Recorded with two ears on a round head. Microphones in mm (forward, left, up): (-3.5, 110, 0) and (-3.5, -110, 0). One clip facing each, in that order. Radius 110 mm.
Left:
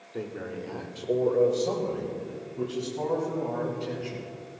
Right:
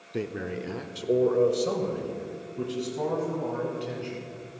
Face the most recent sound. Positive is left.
turn(degrees=0)  # may be behind; listen again after turning